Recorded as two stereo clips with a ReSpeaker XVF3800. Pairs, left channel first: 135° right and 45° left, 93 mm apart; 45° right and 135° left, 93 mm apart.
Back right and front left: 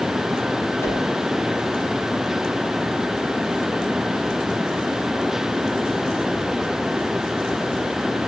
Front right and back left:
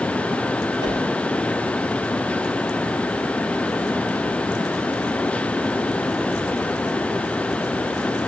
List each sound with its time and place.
0.8 s a whoosh: 165° left, 3.5 m